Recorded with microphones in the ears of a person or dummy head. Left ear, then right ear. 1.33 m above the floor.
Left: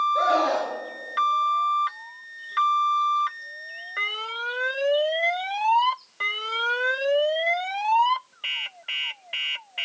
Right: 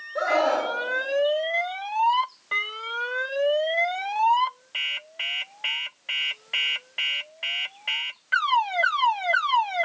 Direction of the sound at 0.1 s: 10° right (ahead or behind).